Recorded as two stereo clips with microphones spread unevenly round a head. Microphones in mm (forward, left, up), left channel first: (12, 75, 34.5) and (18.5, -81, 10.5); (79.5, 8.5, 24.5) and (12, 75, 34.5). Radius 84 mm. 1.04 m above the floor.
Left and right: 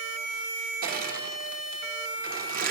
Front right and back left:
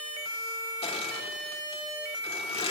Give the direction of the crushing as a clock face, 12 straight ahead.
2 o'clock.